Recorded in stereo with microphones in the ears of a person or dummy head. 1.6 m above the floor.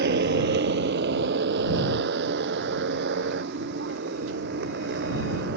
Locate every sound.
0.0 s a motorcycle: 60° right (ahead or behind); by 5.6 s 65° right (ahead or behind)